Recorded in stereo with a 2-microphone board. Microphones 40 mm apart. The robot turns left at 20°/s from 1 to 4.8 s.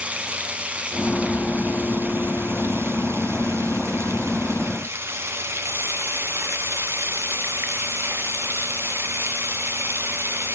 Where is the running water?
30° right, 1.1 m; by 10.6 s 105° right, 1.1 m.